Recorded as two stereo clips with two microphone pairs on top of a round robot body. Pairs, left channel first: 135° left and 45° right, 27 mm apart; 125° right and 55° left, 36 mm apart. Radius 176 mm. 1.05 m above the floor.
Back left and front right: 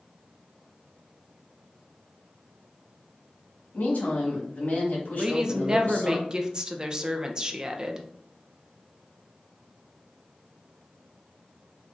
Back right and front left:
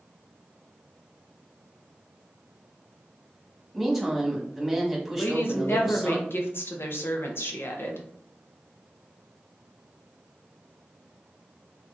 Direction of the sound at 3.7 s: 140° left.